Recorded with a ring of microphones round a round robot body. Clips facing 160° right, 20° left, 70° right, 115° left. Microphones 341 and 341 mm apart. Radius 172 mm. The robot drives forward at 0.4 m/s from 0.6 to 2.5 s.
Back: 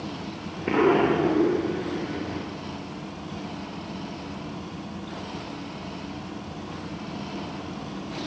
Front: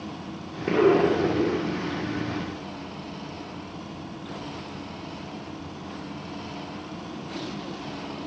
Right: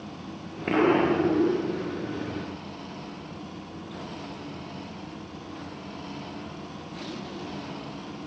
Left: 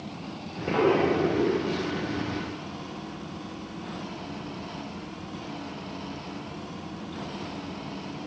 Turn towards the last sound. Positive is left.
turn(degrees=-150)